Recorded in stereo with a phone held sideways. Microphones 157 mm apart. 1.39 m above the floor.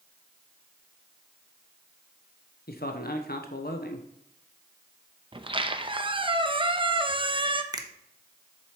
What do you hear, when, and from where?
2.7 s a man speaking: 75° left (ahead or behind), 0.9 m
5.3 s a squeak: 30° right (ahead or behind), 0.6 m
7.7 s a finger snap: 25° right (ahead or behind), 0.9 m